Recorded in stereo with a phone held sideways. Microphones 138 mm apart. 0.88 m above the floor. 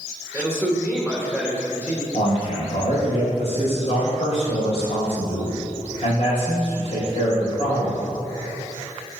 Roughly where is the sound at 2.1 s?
Left.